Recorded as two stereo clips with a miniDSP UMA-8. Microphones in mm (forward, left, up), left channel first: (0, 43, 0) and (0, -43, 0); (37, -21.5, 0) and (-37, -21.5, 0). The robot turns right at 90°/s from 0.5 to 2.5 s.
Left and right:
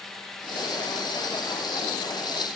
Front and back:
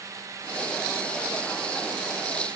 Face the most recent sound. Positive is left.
No sound to turn to.